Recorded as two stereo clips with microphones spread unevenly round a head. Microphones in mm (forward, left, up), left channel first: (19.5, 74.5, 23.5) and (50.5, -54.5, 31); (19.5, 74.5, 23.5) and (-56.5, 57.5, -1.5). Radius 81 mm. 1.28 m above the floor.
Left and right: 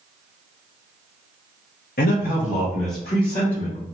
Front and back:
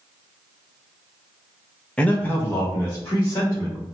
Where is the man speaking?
90° left, 0.6 m; by 3.9 s 60° left, 2 m.